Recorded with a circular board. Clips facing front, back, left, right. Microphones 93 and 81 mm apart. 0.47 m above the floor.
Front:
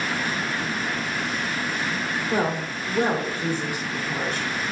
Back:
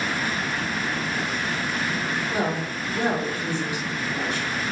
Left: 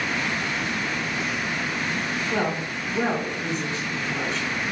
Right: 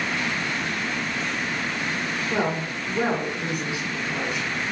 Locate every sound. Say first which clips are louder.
2.3 s a woman speaking: front 4 dB, right 1 dB; 15° right, 1.4 m